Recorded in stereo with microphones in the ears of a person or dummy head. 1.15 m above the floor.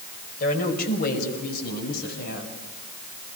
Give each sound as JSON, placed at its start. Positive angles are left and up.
{"t": 0.4, "sound": "a woman speaking", "side_deg": 55, "distance_m": 5.0}